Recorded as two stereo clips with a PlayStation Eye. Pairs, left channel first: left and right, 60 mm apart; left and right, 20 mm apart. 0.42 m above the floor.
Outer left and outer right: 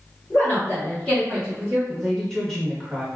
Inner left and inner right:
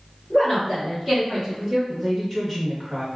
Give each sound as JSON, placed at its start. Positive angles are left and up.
{"t": 0.3, "sound": "a woman speaking", "side_deg": 35, "distance_m": 1.6}
{"t": 1.9, "sound": "a woman speaking", "side_deg": 5, "distance_m": 1.0}